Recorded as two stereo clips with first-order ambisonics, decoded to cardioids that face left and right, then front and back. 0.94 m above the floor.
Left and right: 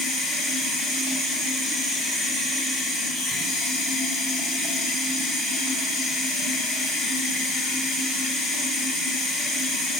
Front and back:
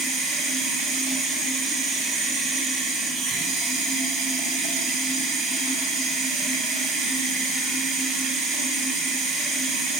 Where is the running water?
140° left, 4 m.